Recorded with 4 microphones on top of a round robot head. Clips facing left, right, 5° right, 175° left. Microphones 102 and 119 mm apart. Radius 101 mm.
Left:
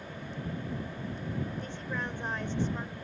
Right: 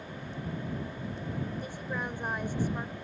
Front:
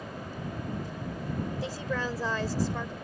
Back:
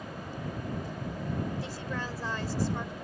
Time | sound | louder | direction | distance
1.6 | a woman speaking | right 1 dB, front 4 dB | 5° right | ?